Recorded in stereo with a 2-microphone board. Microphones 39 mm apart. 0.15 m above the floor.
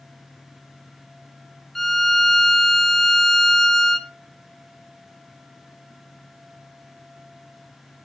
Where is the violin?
10° left (ahead or behind), 0.5 m.